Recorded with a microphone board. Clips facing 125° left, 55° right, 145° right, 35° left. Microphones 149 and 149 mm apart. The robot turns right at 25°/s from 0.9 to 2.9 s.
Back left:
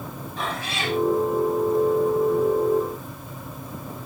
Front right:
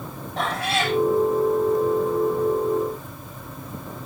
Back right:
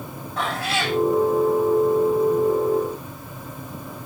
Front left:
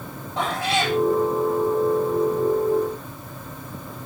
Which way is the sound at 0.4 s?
35° right.